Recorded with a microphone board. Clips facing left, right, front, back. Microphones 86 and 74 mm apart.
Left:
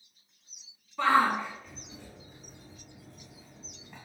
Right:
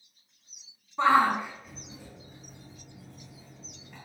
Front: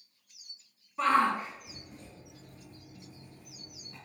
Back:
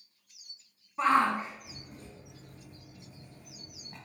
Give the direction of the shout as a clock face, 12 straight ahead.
4 o'clock.